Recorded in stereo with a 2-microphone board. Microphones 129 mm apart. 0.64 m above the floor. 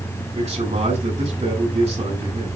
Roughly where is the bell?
I don't hear a bell.